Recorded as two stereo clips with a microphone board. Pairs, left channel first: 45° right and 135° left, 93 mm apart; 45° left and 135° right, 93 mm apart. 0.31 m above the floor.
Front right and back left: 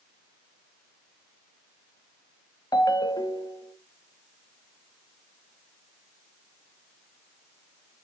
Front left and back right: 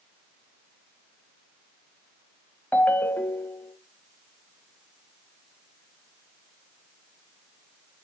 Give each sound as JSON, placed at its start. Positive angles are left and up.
{"t": 2.7, "sound": "a ringtone", "azimuth_deg": -20, "distance_m": 1.0}